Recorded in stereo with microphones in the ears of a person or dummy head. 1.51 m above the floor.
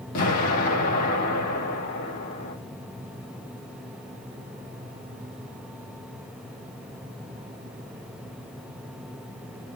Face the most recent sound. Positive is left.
turn(degrees=45)  # may be behind; listen again after turning